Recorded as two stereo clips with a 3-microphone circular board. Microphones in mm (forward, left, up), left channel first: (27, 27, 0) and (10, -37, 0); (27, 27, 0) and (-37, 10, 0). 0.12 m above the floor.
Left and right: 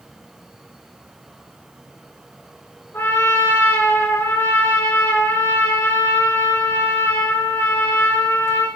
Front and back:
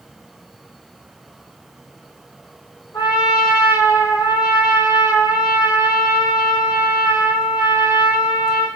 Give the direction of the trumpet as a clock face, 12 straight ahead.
11 o'clock.